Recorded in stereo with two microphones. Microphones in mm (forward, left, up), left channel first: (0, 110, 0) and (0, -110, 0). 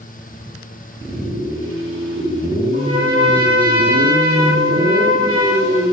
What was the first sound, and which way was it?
A trumpet, 20° right (ahead or behind).